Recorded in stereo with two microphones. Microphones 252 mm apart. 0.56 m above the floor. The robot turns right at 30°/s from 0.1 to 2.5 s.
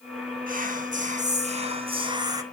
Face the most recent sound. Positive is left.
turn(degrees=-25)